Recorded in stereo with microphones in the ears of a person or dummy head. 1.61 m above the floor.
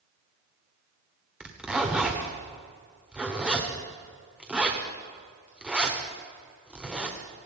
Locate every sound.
1.4 s a zipper: centre (ahead or behind), 1.3 m